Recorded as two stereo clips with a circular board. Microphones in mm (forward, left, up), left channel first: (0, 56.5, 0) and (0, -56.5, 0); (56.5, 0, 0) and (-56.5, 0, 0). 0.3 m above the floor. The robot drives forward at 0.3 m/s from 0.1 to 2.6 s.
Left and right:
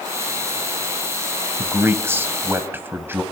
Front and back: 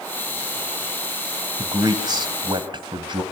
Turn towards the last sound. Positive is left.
turn(degrees=-155)